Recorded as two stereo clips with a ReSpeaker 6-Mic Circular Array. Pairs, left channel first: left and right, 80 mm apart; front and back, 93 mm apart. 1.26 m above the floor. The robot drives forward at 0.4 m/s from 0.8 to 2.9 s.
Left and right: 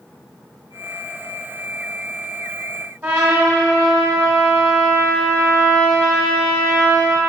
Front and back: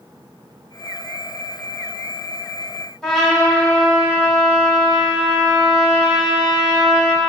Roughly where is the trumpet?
Right.